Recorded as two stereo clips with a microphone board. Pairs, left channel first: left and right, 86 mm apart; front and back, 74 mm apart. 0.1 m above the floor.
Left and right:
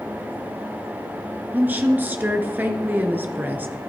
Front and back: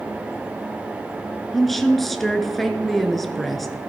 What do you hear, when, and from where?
1.5 s a woman speaking: 80° right, 1.1 m